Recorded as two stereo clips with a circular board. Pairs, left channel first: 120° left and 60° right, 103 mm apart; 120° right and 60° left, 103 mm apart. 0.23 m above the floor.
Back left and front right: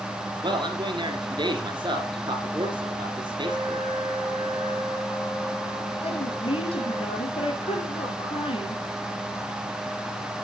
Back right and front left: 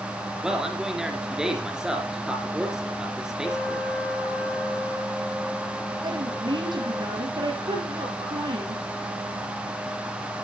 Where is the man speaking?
25° right, 3 m.